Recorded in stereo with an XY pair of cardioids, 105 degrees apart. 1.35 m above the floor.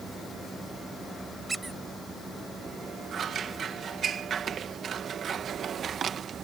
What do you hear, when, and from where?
0.0 s a machine running: 30° right
1.5 s a squeak: 20° right
3.1 s scissors: 50° right